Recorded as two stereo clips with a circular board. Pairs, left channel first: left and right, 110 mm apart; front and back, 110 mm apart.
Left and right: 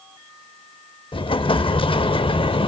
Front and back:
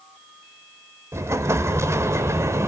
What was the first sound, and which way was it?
An explosion, 120° left.